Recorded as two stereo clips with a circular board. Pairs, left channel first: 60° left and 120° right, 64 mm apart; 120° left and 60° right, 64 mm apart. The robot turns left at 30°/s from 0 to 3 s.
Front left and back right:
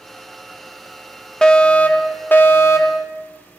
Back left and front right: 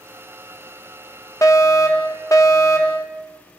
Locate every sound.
1.4 s a fire alarm: 135° left, 2.5 m; by 3.0 s 90° left, 2.5 m